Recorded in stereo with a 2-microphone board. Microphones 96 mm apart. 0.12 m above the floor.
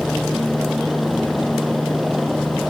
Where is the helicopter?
Centre (ahead or behind); by 2.7 s 5° right (ahead or behind).